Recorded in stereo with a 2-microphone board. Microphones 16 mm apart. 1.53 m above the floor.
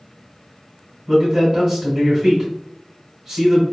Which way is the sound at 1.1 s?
35° right (ahead or behind).